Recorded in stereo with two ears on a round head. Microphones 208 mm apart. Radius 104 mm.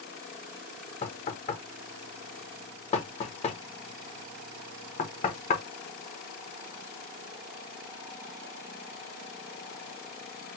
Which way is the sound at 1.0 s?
30° left (ahead or behind).